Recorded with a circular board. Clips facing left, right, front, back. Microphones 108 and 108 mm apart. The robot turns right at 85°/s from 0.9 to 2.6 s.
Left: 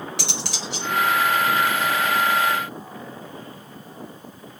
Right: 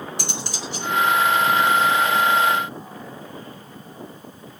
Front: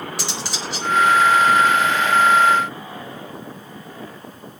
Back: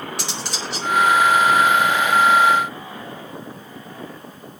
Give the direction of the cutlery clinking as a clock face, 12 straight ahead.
9 o'clock.